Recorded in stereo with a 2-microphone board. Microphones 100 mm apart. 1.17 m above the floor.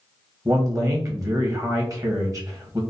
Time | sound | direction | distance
0.5 | a man speaking | 35° right (ahead or behind) | 1.3 m